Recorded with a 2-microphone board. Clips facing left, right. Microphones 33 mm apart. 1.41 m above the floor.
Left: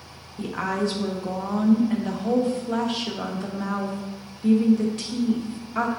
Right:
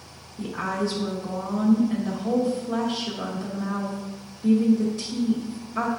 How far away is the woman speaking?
About 1.2 m.